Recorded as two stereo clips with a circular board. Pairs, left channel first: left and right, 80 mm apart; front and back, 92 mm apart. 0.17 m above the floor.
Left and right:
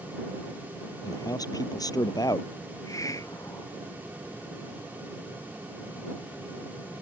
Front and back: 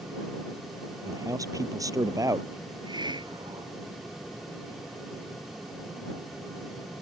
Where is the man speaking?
130° left.